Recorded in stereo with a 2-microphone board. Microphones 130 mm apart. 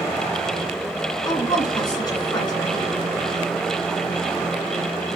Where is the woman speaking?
35° left (ahead or behind), 1.8 m.